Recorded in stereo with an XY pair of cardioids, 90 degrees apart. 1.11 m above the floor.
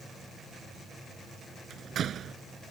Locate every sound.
1.7 s a door slam: 65° right